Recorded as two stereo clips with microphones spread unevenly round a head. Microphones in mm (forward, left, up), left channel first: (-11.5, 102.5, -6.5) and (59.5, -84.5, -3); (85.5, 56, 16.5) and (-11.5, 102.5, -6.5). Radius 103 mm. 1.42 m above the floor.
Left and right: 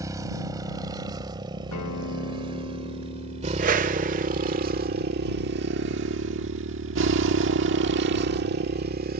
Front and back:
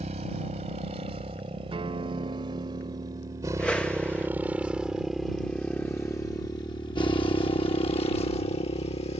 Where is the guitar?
115° left.